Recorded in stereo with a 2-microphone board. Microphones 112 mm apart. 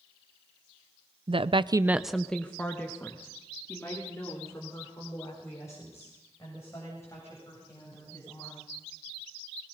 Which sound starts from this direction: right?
A woman speaking, at 1.3 s.